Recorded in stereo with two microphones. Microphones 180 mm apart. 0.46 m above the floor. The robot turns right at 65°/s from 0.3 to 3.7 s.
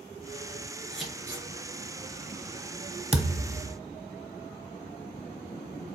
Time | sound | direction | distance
0.9 | scissors | 5° left (ahead or behind) | 2.5 m
3.1 | a thud | 145° right | 0.8 m